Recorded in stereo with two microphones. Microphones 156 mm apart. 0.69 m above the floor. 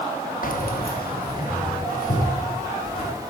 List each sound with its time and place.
0.4 s keys jangling: 60° left (ahead or behind), 0.7 m; by 3.1 s 65° left (ahead or behind), 4 m